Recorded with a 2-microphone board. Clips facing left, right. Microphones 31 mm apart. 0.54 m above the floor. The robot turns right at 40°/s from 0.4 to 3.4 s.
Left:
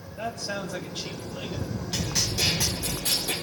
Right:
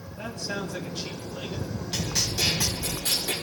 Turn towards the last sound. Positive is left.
turn(degrees=-125)